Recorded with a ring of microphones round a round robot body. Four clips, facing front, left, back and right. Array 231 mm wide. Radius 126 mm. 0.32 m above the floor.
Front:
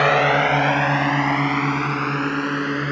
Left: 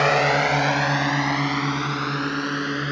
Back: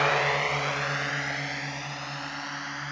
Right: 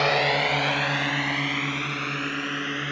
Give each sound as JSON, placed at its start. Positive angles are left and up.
{"t": 0.0, "sound": "a drone", "azimuth_deg": 20}